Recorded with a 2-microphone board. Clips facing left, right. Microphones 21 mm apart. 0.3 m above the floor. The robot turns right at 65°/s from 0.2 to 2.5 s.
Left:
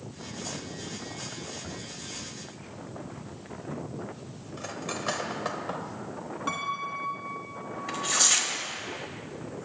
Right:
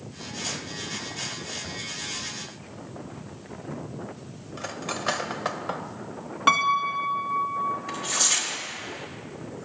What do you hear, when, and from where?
4.6 s cutlery clinking: 20° right (ahead or behind), 0.6 m
6.5 s a piano: 60° right (ahead or behind), 0.8 m
7.9 s tearing paper: 10° left (ahead or behind), 1.4 m